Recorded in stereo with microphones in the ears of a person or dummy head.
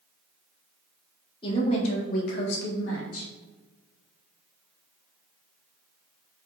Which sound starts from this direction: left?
A woman speaking, at 1.4 s.